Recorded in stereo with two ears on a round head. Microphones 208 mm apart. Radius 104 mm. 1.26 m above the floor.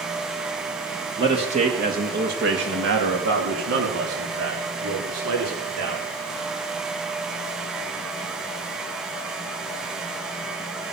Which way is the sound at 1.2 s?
20° right (ahead or behind).